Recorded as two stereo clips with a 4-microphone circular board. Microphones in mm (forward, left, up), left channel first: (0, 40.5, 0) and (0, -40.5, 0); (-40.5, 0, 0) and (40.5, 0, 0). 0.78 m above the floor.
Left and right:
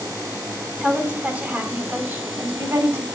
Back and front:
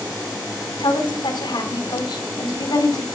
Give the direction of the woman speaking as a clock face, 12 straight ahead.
6 o'clock.